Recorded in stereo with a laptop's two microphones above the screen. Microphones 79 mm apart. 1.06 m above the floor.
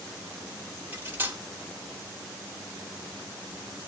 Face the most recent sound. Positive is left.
turn(degrees=-25)  # may be behind; listen again after turning